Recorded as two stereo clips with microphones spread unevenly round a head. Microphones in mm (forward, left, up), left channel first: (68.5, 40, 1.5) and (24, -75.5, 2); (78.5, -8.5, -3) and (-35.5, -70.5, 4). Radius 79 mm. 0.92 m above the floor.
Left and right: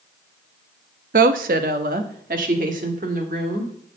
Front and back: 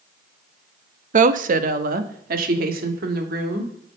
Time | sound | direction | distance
1.1 | a woman speaking | 125° right | 0.8 m